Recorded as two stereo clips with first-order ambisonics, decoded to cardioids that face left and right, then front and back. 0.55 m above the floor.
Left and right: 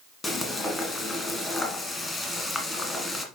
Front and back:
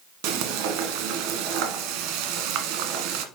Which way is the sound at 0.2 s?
170° left.